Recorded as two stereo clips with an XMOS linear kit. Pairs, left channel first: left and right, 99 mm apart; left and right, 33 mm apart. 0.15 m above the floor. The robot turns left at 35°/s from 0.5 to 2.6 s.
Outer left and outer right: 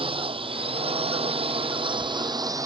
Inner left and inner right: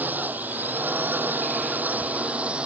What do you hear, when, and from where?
0.0 s a drone: 65° right (ahead or behind); by 2.7 s 35° right (ahead or behind)